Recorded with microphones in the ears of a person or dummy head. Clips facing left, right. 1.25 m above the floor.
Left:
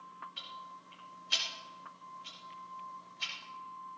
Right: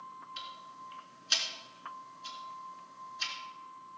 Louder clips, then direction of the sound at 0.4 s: Right 2 dB; 75° right (ahead or behind).